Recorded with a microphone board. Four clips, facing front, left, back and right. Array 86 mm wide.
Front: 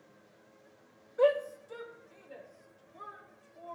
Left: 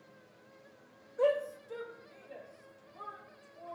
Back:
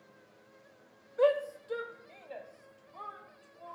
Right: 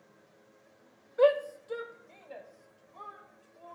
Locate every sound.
1.2 s a shout: 95° right, 0.9 m; by 3.7 s 160° right, 3 m